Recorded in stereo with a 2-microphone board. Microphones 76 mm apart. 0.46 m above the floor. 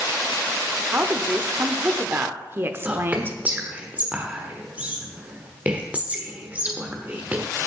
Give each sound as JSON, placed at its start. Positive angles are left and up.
{"t": 0.9, "sound": "a woman speaking", "side_deg": -30, "distance_m": 1.0}
{"t": 2.9, "sound": "whispering", "side_deg": -20, "distance_m": 1.2}